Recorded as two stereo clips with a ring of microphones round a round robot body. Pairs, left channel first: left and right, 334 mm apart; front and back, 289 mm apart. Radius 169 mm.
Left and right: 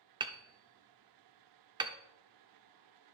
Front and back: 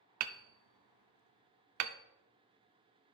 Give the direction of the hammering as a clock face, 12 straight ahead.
6 o'clock.